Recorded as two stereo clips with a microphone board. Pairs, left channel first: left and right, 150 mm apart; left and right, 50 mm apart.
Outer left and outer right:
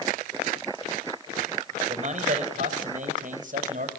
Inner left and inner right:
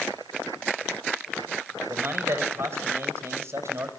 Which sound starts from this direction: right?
A man speaking, at 1.9 s.